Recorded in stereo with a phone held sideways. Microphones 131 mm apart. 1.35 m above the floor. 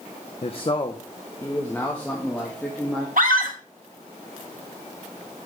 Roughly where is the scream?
Right.